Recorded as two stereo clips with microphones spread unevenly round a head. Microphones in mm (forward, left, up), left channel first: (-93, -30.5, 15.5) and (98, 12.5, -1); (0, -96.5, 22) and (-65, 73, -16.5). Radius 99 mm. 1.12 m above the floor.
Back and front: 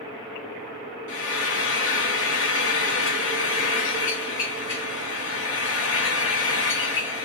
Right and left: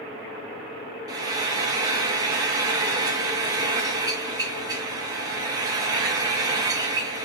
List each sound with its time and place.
1.1 s frying: 170° left, 1.0 m